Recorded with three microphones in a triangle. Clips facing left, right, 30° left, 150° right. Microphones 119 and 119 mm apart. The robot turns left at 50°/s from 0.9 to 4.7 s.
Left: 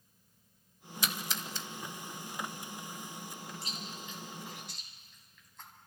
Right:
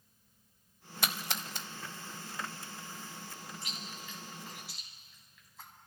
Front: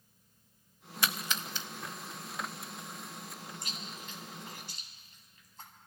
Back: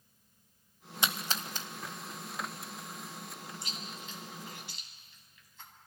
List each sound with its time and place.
1.0 s a splash: 85° right, 0.6 m; by 1.7 s 115° right, 0.6 m
3.6 s chewing: 50° left, 2 m; by 5.7 s 5° right, 2 m